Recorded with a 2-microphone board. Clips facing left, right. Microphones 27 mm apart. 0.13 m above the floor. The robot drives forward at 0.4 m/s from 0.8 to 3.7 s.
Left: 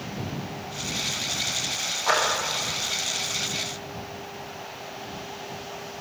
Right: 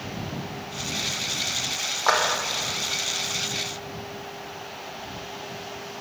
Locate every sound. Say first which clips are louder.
2.1 s a clap: right 2 dB; 35° right (ahead or behind), 6 m